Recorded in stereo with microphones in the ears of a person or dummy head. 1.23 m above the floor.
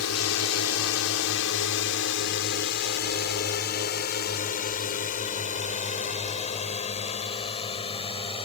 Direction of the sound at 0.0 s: 80° left.